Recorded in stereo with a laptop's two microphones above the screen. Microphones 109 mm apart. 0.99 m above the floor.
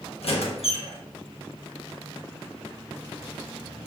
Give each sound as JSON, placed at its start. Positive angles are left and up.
{"t": 0.2, "sound": "a squeak", "side_deg": 70, "distance_m": 0.8}